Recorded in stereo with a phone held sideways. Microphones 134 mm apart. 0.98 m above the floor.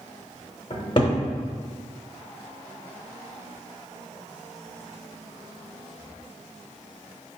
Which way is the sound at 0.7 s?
40° left (ahead or behind).